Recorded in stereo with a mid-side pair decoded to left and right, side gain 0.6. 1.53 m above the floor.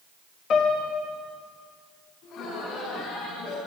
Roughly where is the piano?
Ahead left.